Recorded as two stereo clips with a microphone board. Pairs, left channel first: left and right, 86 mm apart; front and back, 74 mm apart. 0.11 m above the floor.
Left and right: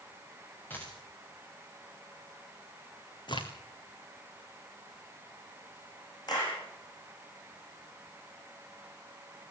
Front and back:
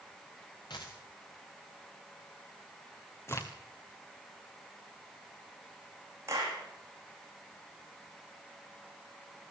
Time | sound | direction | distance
0.7 | a dropped coin | 20° left | 4.5 m
3.3 | a crack | 55° left | 2 m
6.3 | a clap | 130° left | 6.5 m